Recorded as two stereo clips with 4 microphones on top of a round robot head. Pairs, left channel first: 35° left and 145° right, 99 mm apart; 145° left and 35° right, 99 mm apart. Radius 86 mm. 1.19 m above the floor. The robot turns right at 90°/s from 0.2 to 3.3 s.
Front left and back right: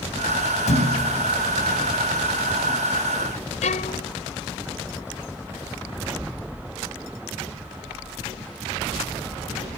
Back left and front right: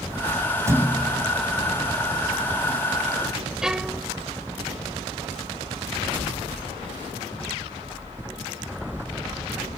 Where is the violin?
50° left.